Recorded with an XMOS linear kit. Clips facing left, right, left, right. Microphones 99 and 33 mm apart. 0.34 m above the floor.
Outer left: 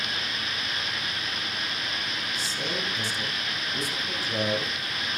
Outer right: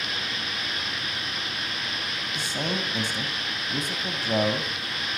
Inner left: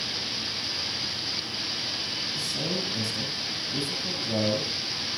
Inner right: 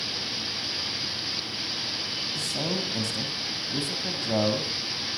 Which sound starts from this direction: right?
A man speaking, at 2.4 s.